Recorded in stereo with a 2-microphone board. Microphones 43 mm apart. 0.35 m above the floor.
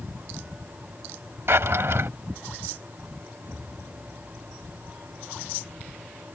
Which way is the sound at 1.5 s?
60° right (ahead or behind).